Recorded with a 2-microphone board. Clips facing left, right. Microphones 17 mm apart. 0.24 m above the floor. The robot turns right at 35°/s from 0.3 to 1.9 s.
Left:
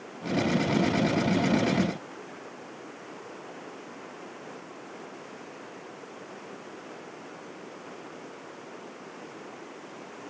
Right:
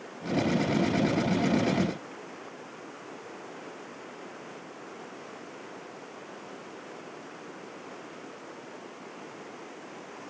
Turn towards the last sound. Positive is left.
No sound to turn to.